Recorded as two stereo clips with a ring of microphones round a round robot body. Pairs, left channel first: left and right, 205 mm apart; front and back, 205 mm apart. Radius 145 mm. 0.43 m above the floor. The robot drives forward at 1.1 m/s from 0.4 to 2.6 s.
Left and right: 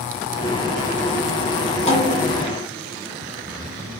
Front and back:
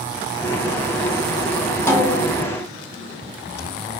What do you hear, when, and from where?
1.9 s a snare drum: 65° left, 1.0 m; by 2.5 s 135° left, 1.1 m